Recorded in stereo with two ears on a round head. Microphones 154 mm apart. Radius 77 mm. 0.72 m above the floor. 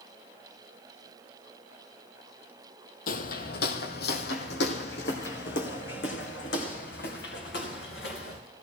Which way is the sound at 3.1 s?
55° left (ahead or behind).